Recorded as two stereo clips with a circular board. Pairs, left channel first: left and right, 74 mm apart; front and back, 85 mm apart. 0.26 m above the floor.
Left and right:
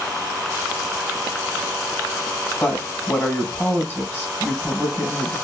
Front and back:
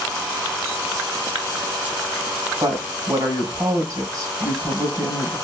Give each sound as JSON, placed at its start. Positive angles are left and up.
{"t": 2.6, "sound": "a woman speaking", "azimuth_deg": 150, "distance_m": 1.7}